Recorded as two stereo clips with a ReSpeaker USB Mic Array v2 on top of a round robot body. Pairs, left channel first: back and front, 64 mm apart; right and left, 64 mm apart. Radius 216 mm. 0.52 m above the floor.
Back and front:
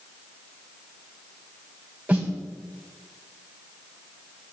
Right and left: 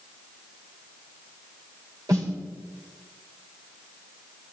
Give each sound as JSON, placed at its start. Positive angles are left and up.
{"t": 2.1, "sound": "a snare drum", "azimuth_deg": 70, "distance_m": 4.0}